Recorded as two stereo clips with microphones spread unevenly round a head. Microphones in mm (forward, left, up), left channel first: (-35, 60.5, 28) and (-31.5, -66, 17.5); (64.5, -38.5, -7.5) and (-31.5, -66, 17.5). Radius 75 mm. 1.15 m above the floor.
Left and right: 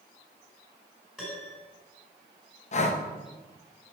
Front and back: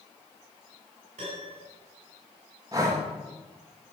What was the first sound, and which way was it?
A piano, straight behind.